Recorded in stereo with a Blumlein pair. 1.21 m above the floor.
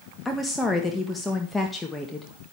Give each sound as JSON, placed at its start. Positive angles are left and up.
{"t": 0.2, "sound": "a woman speaking", "azimuth_deg": 10, "distance_m": 1.8}